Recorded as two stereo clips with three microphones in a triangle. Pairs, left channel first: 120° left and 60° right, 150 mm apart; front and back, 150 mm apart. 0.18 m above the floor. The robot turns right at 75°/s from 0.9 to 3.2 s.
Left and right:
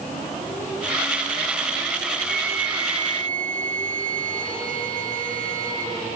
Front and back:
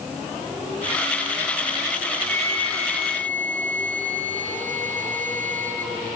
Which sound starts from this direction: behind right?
A flute, at 2.3 s.